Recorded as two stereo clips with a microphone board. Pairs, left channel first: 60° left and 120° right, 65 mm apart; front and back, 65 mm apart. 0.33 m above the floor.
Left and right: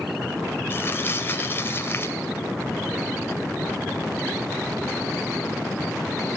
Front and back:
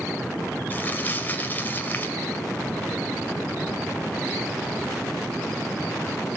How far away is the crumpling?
About 1.7 m.